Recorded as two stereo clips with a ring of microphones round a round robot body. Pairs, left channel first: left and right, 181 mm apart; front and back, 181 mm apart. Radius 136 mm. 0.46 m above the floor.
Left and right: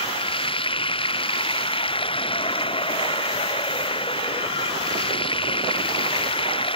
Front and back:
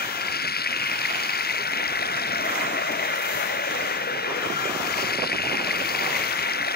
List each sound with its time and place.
0.0 s running water: 30° left